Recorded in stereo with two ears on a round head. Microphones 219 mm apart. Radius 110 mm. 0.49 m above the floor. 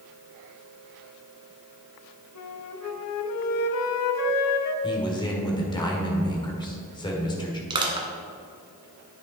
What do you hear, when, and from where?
2.4 s a flute: 70° left (ahead or behind), 0.8 m
4.8 s a man speaking: 20° left (ahead or behind), 1.6 m
7.7 s crushing: 20° right (ahead or behind), 1.4 m